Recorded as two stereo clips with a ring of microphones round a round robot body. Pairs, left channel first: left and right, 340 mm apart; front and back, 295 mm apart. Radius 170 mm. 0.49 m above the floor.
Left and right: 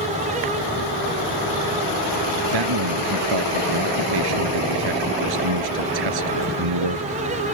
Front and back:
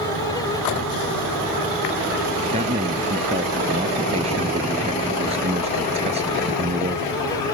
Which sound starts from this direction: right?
A man speaking, at 2.5 s.